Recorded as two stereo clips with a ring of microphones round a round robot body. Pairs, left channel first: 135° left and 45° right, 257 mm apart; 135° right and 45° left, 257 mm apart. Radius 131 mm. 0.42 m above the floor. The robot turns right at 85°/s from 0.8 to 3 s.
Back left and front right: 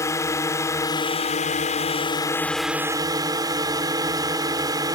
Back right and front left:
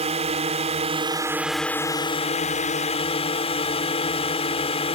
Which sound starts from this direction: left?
A drone, at 0.0 s.